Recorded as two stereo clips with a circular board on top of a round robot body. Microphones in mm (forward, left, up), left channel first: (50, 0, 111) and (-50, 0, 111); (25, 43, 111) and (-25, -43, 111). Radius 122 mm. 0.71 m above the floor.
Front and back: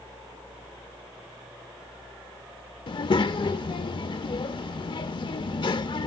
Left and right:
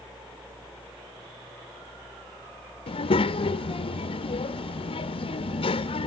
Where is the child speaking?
35° left, 0.5 m.